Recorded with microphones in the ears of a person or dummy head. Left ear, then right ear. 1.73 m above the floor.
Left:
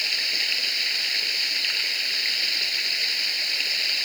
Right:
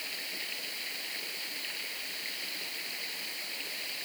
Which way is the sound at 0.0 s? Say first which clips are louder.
Left 14 dB; 60° left (ahead or behind).